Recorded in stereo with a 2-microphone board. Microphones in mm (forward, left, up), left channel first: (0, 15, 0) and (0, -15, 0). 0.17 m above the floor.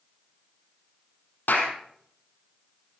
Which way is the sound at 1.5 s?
80° left.